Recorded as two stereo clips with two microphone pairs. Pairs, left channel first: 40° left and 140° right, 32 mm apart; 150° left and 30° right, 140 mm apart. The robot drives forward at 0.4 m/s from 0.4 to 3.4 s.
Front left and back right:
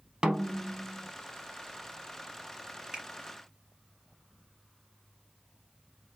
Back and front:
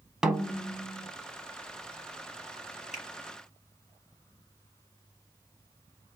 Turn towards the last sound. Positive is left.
turn(degrees=155)